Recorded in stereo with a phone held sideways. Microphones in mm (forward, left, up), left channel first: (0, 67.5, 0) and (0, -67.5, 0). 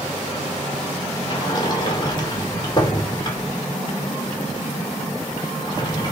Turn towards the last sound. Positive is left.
turn(degrees=35)  # may be behind; listen again after turning